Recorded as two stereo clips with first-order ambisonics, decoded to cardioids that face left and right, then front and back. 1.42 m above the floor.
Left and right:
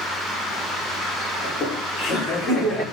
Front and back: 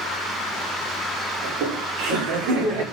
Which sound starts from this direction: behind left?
Laughter, at 1.4 s.